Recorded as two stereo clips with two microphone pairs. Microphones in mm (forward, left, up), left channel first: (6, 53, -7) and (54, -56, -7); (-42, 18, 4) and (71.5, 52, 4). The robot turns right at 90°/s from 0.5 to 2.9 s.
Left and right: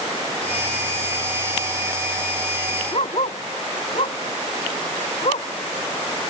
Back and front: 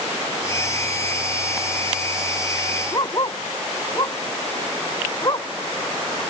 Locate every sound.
2.9 s a dog barking: 145° left